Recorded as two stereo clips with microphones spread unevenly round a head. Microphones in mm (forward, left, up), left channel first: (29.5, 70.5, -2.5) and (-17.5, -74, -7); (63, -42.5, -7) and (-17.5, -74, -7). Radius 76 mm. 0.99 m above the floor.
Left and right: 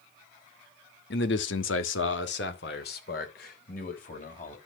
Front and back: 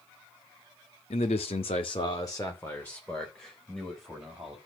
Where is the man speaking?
50° left, 1.5 m; by 4.6 s 115° left, 4.5 m.